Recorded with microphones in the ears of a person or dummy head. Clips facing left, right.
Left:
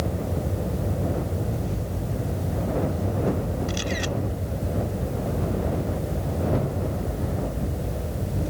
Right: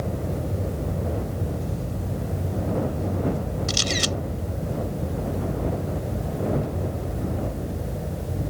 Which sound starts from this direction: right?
A camera shutter, at 3.7 s.